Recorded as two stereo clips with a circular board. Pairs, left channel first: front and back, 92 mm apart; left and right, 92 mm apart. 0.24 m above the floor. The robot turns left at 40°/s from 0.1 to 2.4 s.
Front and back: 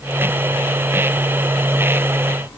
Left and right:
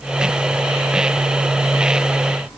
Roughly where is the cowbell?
No cowbell in this recording.